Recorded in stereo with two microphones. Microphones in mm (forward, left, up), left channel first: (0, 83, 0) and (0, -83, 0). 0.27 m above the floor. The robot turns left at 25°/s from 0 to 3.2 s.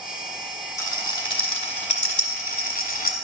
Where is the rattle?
20° left (ahead or behind), 1.4 m; by 3.1 s 65° left (ahead or behind), 1.4 m.